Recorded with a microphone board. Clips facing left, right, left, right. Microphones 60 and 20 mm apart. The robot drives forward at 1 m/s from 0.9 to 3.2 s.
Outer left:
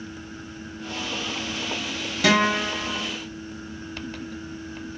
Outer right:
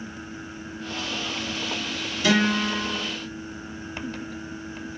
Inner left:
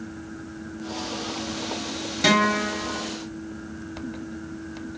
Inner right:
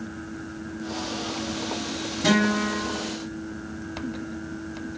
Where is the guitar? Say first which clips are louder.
Outer left 1 dB, inner left 2 dB; 70° left (ahead or behind), 7 m; by 3.1 s 65° left (ahead or behind), 7 m.